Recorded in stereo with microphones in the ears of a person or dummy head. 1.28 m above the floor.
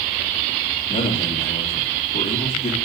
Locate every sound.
0.9 s a man speaking: 40° left (ahead or behind), 3 m